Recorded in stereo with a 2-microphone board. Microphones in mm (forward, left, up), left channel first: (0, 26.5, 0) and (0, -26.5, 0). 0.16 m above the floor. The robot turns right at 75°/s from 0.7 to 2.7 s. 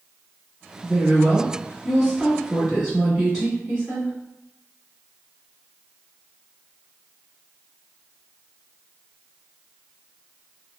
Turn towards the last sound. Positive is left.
turn(degrees=5)  # may be behind; listen again after turning